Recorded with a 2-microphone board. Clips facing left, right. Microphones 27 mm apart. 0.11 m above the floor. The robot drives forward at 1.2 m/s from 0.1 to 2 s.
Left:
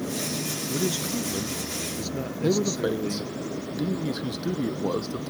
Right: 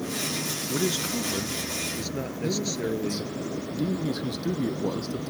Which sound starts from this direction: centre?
A man speaking, at 0.7 s.